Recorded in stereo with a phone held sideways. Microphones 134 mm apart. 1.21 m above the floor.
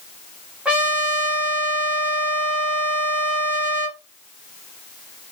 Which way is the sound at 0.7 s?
10° right (ahead or behind).